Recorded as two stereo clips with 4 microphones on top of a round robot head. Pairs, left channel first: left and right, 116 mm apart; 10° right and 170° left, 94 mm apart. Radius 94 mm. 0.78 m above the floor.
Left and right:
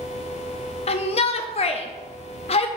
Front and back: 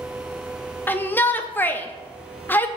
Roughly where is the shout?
Ahead left.